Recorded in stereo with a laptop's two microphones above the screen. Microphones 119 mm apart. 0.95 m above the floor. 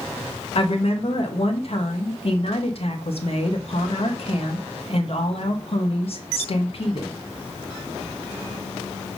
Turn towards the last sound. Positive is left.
turn(degrees=55)  # may be behind; listen again after turning